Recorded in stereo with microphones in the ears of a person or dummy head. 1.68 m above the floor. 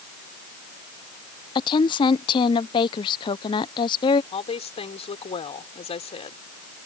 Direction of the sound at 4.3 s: 30° left (ahead or behind).